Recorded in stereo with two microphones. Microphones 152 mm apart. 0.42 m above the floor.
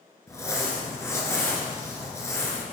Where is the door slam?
No door slam in this recording.